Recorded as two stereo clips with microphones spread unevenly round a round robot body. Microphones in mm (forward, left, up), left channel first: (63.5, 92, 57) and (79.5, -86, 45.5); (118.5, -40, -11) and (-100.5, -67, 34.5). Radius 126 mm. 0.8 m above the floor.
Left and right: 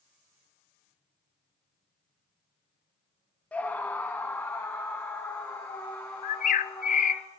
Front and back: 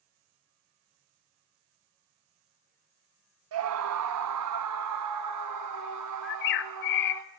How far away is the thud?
I don't hear a thud.